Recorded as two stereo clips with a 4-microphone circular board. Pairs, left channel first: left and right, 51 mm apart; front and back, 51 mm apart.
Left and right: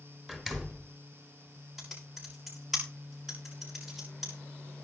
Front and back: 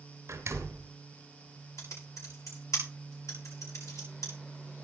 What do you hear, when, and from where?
0.3 s a door slam: 170° right, 2.5 m
1.8 s typing on a keyboard: straight ahead, 8 m